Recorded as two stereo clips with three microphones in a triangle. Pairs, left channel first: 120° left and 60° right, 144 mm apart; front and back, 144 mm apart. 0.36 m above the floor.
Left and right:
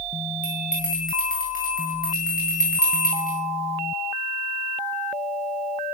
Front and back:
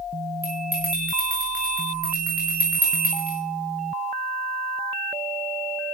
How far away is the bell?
About 8.5 m.